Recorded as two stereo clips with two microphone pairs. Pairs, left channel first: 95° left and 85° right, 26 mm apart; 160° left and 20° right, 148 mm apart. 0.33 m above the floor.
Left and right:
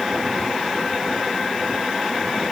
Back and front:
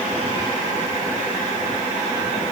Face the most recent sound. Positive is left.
No sound to turn to.